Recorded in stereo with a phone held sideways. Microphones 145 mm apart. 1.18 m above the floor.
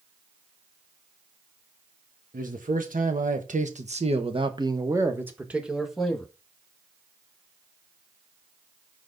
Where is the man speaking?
75° right (ahead or behind), 1.6 m; by 6.3 s 5° left (ahead or behind), 1.9 m.